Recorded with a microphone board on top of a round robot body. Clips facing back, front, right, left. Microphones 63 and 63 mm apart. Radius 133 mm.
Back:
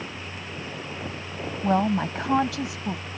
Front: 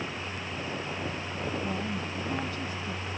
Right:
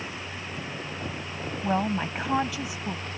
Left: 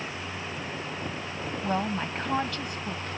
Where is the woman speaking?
175° right.